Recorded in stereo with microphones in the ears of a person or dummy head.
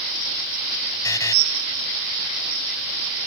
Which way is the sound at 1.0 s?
20° left (ahead or behind).